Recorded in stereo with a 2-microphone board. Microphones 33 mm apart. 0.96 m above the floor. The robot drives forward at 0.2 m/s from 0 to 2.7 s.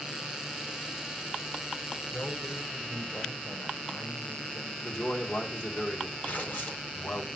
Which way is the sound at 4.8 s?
75° left (ahead or behind).